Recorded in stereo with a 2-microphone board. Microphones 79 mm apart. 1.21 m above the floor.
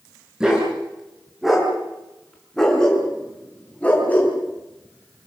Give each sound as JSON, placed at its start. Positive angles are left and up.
{"t": 0.4, "sound": "a dog barking", "side_deg": -10, "distance_m": 7.0}